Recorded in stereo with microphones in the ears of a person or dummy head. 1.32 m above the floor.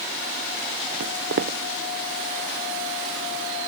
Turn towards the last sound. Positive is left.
turn(degrees=-65)  # may be behind; listen again after turning